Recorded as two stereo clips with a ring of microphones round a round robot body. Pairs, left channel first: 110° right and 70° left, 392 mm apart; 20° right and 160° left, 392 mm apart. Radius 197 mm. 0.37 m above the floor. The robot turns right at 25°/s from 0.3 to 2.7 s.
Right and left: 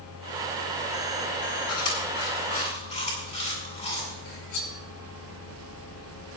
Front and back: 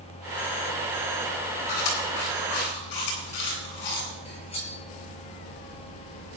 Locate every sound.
1.7 s chewing: 65° right, 8 m; by 4.1 s 40° right, 8 m
4.2 s cutlery clinking: 95° right, 5 m